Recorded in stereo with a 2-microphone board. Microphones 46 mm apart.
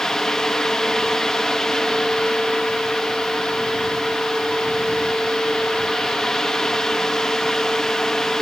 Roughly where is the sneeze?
I don't hear a sneeze.